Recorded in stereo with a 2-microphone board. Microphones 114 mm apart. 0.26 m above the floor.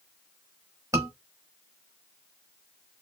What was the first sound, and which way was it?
A scream, 30° right (ahead or behind).